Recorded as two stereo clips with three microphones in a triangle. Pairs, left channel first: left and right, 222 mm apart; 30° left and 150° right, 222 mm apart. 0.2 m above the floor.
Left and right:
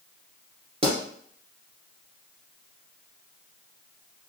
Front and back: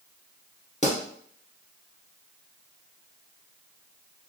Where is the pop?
30° right, 1.8 m.